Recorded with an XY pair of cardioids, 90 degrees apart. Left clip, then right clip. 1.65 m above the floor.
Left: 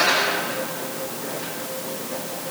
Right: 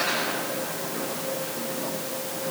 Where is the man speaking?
I don't hear a man speaking.